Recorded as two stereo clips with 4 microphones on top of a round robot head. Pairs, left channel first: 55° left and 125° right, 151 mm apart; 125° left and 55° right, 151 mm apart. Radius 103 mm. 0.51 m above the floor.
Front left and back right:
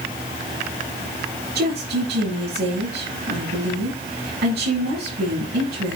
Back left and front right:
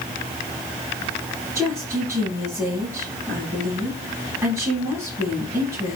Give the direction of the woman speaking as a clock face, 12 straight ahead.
4 o'clock.